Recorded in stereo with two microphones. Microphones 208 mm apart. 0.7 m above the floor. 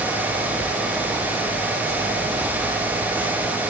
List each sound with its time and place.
Only background noise.